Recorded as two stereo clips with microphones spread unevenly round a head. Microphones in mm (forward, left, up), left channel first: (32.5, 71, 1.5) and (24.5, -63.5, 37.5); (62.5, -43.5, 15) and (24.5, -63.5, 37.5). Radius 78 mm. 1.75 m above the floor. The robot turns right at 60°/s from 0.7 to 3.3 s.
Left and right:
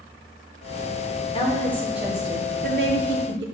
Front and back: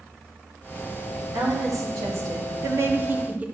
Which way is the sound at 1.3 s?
145° left.